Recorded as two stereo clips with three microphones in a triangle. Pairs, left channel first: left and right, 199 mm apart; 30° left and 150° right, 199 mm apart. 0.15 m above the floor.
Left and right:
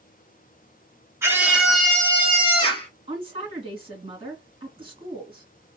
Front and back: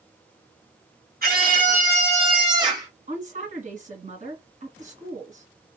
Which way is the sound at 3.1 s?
135° right.